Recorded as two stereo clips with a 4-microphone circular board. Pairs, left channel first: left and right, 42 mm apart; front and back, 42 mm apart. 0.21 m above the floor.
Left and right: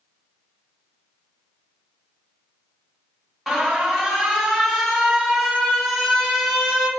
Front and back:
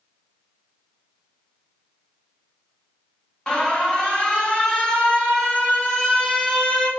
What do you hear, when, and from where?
3.5 s an alarm: straight ahead, 0.8 m